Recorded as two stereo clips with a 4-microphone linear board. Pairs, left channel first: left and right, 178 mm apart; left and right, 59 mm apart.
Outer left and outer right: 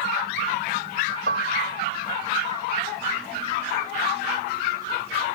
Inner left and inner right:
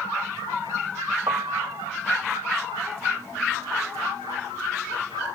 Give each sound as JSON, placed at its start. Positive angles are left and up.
{"t": 1.3, "sound": "a piano", "side_deg": -80}